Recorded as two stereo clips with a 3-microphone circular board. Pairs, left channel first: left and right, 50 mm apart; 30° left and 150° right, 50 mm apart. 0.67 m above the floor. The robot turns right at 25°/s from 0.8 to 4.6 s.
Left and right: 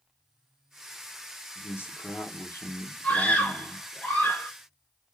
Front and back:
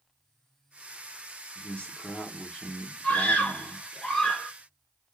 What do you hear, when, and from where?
1.6 s a man speaking: 75° left, 1.2 m; by 3.9 s 135° left, 1.2 m
3.0 s a scream: 65° left, 1.3 m; by 4.5 s 105° left, 1.3 m